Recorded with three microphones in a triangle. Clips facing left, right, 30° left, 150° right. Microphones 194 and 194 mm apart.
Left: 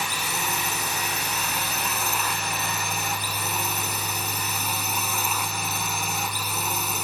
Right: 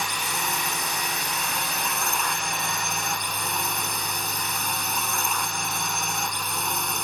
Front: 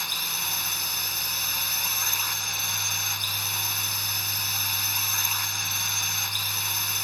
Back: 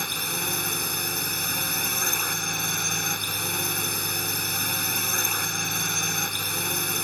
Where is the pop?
I don't hear a pop.